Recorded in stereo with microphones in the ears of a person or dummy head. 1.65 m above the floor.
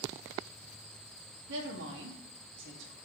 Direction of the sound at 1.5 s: 60° right (ahead or behind).